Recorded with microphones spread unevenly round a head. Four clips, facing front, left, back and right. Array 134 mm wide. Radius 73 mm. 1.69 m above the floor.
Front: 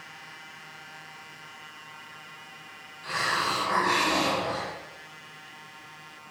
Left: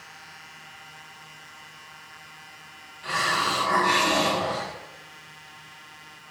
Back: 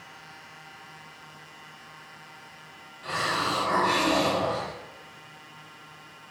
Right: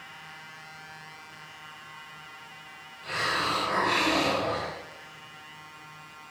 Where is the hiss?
160° left, 4 m.